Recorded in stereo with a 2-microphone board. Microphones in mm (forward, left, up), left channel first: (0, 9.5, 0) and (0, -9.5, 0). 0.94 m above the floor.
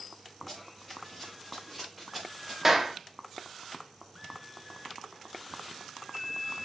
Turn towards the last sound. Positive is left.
turn(degrees=-15)  # may be behind; listen again after turning